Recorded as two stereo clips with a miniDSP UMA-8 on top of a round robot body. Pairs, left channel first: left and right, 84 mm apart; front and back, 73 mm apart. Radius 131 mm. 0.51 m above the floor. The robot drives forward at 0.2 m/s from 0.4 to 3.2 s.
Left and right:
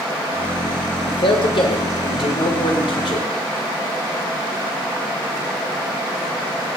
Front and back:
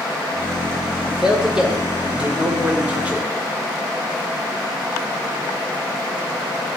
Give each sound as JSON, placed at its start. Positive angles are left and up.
{"t": 1.1, "sound": "a man speaking", "azimuth_deg": 100, "distance_m": 2.0}